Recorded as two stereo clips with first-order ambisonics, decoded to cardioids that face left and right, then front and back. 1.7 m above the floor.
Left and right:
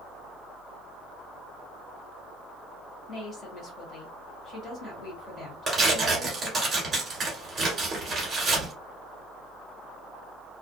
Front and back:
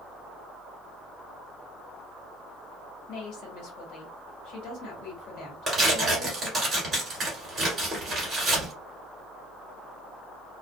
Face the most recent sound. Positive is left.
turn(degrees=-130)